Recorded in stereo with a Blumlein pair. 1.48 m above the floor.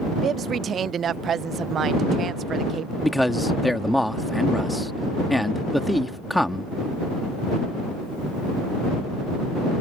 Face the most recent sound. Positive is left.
turn(degrees=0)